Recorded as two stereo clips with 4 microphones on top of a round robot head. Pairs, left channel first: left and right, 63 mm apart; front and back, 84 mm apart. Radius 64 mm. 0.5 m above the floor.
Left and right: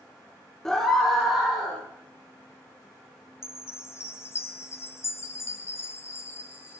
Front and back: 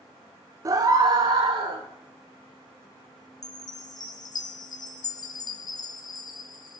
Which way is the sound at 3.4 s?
40° left.